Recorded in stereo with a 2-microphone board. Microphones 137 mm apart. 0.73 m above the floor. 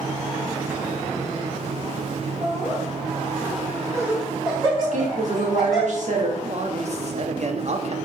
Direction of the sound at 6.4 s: 55° right (ahead or behind).